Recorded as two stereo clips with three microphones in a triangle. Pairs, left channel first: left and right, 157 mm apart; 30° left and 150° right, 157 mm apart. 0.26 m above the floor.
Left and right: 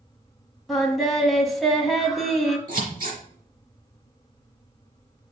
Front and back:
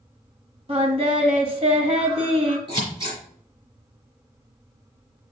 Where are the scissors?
95° right, 4 m.